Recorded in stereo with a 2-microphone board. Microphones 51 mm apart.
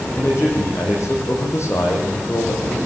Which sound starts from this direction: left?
A man speaking, at 0.1 s.